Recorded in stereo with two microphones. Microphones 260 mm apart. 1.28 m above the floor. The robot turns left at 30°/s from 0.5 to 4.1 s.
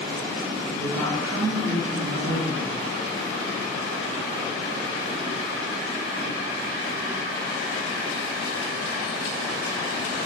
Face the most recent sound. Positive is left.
turn(degrees=-175)